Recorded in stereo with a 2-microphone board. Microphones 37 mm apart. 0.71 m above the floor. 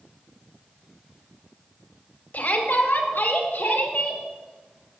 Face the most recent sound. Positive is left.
turn(degrees=70)  # may be behind; listen again after turning